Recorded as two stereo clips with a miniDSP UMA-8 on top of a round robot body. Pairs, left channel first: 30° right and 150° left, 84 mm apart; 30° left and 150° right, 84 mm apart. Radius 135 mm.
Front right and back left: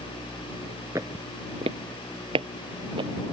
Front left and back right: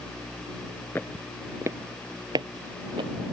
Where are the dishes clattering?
I don't hear dishes clattering.